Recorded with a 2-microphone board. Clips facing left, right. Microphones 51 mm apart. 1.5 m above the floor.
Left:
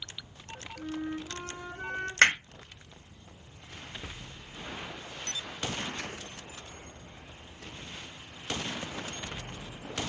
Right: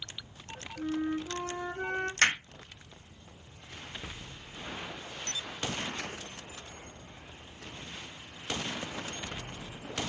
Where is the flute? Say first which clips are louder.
Right 4 dB; 25° right (ahead or behind), 0.6 m.